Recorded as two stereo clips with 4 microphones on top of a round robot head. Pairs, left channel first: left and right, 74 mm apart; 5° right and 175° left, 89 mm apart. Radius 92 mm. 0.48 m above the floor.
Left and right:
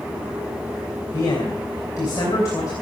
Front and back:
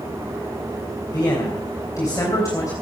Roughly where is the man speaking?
Ahead left.